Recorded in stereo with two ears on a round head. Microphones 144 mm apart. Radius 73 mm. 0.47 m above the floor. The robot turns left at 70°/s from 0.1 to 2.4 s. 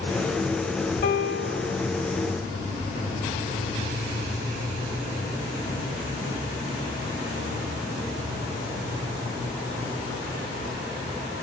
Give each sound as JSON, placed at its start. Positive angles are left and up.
{"t": 1.0, "sound": "a piano", "azimuth_deg": 115, "distance_m": 0.9}